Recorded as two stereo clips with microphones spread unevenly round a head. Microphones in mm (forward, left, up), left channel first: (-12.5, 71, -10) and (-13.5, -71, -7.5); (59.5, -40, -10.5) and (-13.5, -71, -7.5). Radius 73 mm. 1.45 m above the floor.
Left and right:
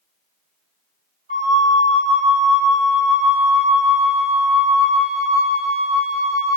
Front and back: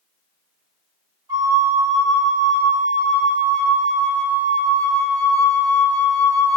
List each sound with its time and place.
1.3 s a flute: 120° right, 1.6 m